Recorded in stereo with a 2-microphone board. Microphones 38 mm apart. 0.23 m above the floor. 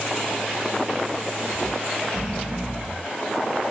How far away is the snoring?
About 2 m.